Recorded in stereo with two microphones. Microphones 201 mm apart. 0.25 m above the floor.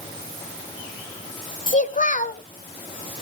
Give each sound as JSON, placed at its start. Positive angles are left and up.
{"t": 1.7, "sound": "a child speaking", "side_deg": 40, "distance_m": 0.8}